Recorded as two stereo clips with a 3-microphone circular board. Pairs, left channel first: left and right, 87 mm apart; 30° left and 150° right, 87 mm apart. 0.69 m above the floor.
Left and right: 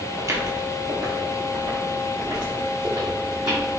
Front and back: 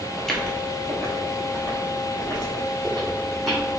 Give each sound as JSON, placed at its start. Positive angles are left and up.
{"t": 0.2, "sound": "footsteps", "azimuth_deg": -55, "distance_m": 0.8}